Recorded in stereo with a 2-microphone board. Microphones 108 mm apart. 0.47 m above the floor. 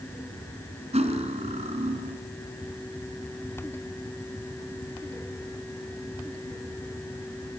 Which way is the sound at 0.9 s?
80° right.